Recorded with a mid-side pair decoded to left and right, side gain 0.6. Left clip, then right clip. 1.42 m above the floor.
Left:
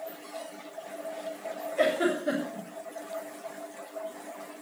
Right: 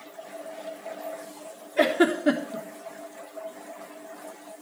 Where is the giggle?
55° right, 3.5 m.